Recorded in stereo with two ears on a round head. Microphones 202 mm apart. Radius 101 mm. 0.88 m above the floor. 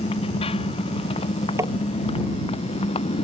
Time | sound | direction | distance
0.0 | a motorcycle | 25° left (ahead or behind) | ?
1.6 | tapping | 15° right (ahead or behind) | ?